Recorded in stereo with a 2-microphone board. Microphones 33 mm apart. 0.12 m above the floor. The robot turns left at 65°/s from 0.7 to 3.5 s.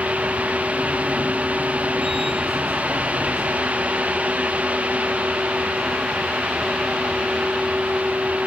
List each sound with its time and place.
Only background noise.